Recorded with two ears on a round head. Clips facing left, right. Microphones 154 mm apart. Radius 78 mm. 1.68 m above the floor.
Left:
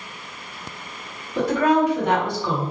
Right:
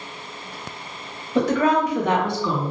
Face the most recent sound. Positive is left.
turn(degrees=-85)